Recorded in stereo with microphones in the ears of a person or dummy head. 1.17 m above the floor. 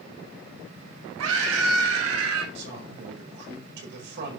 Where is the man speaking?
65° right (ahead or behind), 4.5 m.